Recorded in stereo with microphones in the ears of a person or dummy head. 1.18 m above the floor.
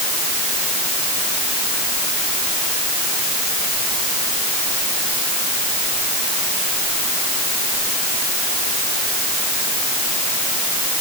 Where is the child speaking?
No child speaking in this recording.